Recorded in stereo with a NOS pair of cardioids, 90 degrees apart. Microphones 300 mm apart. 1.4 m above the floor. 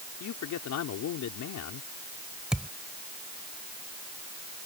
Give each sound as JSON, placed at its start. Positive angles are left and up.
{"t": 0.2, "sound": "a man speaking", "azimuth_deg": 70}
{"t": 2.5, "sound": "a thud", "azimuth_deg": -5}